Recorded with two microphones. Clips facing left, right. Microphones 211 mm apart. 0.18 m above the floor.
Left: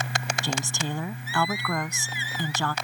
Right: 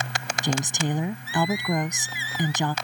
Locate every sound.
0.4 s a woman speaking: 20° right (ahead or behind)